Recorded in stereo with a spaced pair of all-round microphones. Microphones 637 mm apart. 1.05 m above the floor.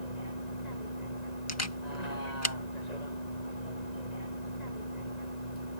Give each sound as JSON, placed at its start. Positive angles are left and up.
{"t": 0.0, "sound": "a vehicle", "side_deg": 85}
{"t": 1.5, "sound": "a camera shutter", "side_deg": 25}